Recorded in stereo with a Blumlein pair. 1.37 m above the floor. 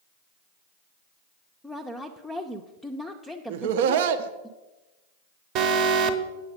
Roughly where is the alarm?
Ahead right.